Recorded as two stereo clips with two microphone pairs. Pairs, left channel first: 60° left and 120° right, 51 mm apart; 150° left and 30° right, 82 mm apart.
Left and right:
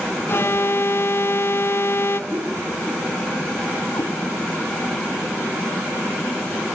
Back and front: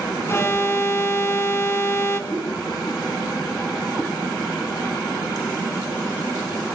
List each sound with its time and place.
0.3 s an alarm: 90° left, 3 m
2.3 s a whoosh: 110° right, 7 m
3.9 s a cat meowing: 45° left, 3 m